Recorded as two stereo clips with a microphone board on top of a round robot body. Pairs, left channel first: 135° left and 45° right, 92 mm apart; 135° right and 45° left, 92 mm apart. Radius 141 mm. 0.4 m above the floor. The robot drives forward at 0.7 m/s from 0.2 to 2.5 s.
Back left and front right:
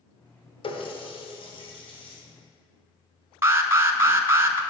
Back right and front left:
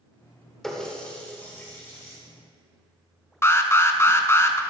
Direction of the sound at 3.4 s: 95° right.